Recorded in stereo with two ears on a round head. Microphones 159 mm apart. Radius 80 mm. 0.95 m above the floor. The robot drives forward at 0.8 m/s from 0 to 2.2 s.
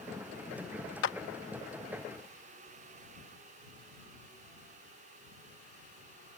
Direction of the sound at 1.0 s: 75° left (ahead or behind).